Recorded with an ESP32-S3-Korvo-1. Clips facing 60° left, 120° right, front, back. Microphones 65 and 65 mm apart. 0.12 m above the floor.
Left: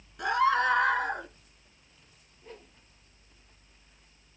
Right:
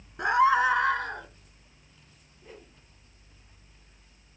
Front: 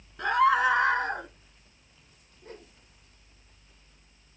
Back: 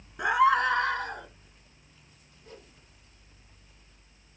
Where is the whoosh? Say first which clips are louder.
Even, front 3 dB; 40° right, 2.5 m.